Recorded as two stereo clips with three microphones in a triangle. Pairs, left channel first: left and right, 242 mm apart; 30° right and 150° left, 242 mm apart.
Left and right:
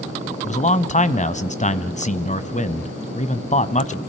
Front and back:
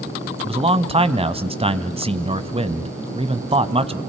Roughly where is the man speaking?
Left.